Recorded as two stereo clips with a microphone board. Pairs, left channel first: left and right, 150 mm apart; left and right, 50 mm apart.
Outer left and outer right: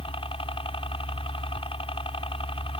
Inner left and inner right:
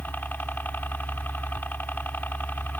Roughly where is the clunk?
I don't hear a clunk.